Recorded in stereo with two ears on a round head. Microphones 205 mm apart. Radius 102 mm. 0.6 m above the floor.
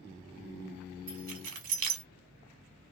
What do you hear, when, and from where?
1.1 s keys jangling: 60° right (ahead or behind), 1.8 m